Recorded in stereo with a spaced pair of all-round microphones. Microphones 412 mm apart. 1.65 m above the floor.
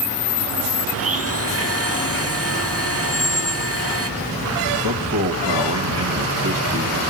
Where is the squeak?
20° right (ahead or behind), 1.6 m.